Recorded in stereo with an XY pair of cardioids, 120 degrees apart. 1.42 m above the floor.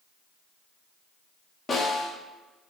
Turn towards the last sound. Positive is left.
turn(degrees=30)